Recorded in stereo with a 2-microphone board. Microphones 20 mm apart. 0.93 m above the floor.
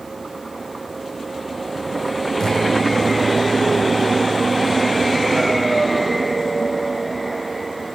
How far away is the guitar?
About 6 m.